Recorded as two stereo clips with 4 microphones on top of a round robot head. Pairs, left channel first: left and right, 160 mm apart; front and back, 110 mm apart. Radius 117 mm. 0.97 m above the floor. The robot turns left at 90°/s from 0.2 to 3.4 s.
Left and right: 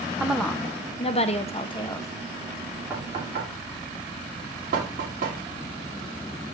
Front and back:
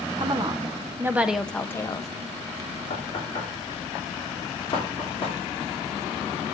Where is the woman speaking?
165° right, 0.7 m; by 2.1 s 20° left, 0.7 m.